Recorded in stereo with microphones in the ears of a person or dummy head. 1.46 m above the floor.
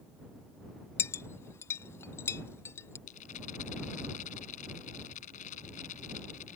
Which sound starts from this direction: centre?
A clink, at 1.0 s.